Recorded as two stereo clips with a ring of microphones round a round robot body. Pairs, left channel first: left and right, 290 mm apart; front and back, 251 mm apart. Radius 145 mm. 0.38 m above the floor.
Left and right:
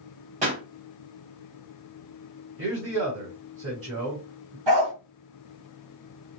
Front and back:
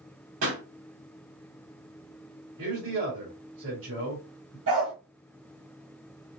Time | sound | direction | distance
0.4 | a pop | 150° right | 2.5 m
2.6 | a man speaking | 125° right | 2 m
4.7 | a dog barking | 115° right | 2 m